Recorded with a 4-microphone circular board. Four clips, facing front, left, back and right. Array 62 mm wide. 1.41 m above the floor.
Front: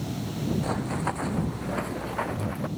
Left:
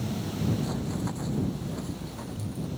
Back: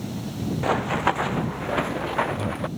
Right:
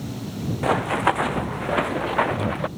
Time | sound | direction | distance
0.6 | running footsteps | 120° right | ?